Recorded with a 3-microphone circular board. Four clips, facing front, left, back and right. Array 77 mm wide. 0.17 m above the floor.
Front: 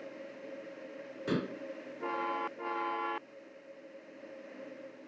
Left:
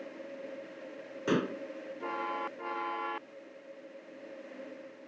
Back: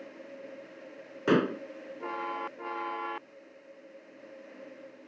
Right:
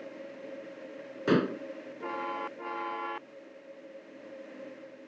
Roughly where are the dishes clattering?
Behind.